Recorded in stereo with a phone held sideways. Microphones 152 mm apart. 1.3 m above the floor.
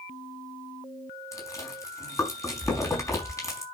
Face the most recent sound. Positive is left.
turn(degrees=20)  # may be behind; listen again after turning